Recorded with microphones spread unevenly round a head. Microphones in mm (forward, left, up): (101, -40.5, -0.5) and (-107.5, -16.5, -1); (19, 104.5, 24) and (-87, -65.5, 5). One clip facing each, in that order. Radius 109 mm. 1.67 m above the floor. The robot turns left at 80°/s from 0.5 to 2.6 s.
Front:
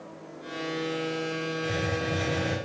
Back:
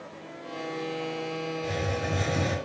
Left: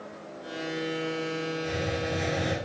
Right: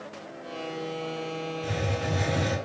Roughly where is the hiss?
Right.